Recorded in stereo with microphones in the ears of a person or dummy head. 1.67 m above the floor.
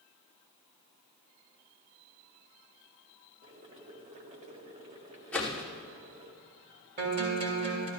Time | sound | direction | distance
3.4 | boiling | 30° right (ahead or behind) | 0.9 m
5.3 | a whoosh | 10° left (ahead or behind) | 2 m
7.0 | a guitar | 40° right (ahead or behind) | 2.0 m